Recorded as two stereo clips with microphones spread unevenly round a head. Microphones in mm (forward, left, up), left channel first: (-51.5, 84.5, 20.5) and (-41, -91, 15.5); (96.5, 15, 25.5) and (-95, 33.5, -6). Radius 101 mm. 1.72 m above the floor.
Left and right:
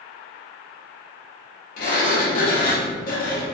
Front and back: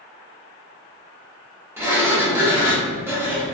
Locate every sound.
1.8 s a sliding door: 90° left, 0.6 m